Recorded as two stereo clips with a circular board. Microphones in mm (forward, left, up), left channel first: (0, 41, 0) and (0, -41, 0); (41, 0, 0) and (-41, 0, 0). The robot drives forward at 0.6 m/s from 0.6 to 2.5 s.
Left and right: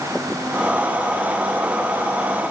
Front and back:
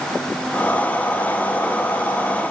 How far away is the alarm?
No alarm in this recording.